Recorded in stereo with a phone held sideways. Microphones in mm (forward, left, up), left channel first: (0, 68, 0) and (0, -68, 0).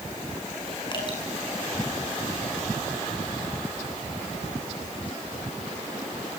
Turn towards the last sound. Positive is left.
turn(degrees=30)  # may be behind; listen again after turning